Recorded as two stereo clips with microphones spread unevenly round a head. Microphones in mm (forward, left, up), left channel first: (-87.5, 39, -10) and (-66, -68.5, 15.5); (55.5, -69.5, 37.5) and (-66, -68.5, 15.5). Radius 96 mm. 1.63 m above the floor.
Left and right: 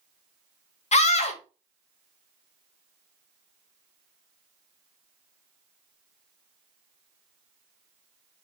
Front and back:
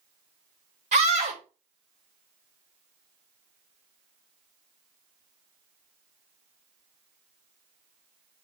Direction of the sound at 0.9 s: 120° left.